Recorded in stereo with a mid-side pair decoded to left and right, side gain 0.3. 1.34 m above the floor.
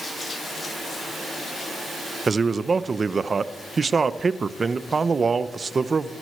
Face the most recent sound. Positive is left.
turn(degrees=-50)